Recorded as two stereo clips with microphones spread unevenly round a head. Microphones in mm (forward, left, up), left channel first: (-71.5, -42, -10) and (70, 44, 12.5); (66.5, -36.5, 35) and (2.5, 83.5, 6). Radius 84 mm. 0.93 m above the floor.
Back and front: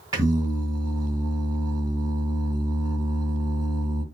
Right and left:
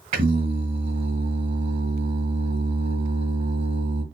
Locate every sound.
0.1 s singing: 100° left, 3 m